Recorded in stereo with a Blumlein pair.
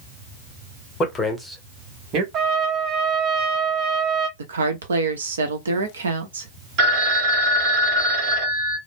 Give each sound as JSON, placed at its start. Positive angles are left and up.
{"t": 1.0, "sound": "a man speaking", "azimuth_deg": 25, "distance_m": 1.0}
{"t": 2.3, "sound": "a trumpet", "azimuth_deg": -30, "distance_m": 0.8}
{"t": 4.4, "sound": "a woman speaking", "azimuth_deg": -70, "distance_m": 0.8}
{"t": 6.8, "sound": "a phone ringing", "azimuth_deg": -40, "distance_m": 1.4}